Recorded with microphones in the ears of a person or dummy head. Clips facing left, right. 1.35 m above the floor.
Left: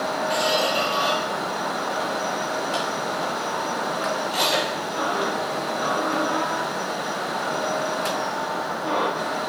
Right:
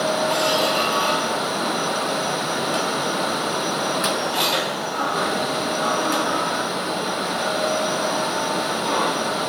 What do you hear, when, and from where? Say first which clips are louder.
0.3 s a squeak: right 2 dB; 20° left (ahead or behind), 4.5 m